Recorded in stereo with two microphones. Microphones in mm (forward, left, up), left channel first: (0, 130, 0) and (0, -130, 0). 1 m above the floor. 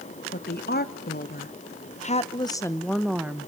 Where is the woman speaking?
40° left (ahead or behind), 1.5 m; by 3.5 s 10° right (ahead or behind), 1.0 m.